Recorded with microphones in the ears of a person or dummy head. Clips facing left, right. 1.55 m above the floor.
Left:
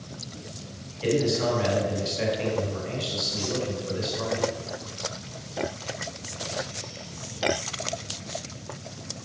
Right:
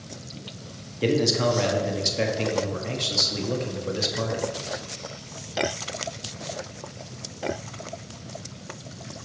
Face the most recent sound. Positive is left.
turn(degrees=-60)  # may be behind; listen again after turning